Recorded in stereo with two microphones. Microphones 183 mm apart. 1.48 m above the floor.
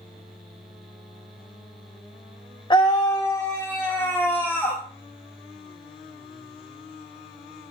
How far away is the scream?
About 0.9 m.